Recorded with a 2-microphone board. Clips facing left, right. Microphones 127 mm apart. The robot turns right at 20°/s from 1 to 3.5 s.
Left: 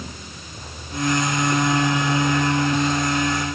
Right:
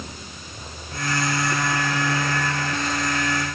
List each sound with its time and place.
Only background noise.